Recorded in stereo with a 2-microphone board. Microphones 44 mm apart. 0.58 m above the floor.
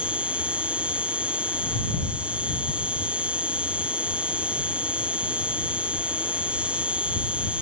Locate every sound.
0.0 s an insect: 25° right (ahead or behind)